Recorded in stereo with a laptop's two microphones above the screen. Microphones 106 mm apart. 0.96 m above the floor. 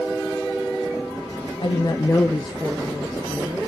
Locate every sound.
1.6 s a woman speaking: 55° left (ahead or behind), 1.1 m; by 3.6 s 40° right (ahead or behind), 1.9 m